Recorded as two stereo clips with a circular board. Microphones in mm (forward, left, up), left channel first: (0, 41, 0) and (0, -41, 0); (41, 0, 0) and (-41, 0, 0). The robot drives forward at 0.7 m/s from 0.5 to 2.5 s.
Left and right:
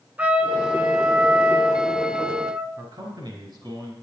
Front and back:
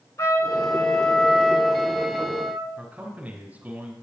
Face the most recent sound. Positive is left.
turn(degrees=-110)